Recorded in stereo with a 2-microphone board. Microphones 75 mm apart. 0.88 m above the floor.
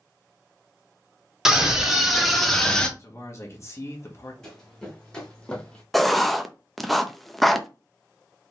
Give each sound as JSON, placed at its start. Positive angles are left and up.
{"t": 1.4, "sound": "a scream", "side_deg": -10, "distance_m": 2.0}
{"t": 3.0, "sound": "a man speaking", "side_deg": 40, "distance_m": 1.3}
{"t": 4.4, "sound": "running footsteps", "side_deg": 5, "distance_m": 3.0}
{"t": 5.9, "sound": "writing", "side_deg": 0, "distance_m": 0.5}